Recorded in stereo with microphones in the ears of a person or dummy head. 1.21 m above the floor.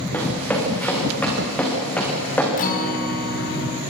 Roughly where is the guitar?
Left.